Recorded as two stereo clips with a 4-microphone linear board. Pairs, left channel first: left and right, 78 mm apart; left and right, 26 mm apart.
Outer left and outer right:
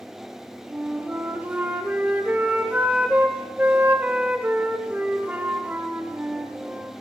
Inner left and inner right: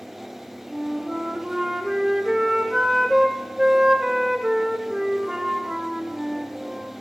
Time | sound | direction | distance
0.7 | a flute | 20° right (ahead or behind) | 1.2 m